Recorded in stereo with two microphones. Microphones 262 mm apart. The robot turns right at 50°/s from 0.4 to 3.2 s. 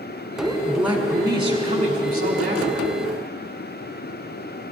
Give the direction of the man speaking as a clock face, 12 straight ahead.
6 o'clock.